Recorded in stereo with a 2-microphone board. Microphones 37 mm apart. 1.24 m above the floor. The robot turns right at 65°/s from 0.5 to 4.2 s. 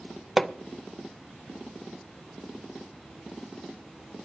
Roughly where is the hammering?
Centre.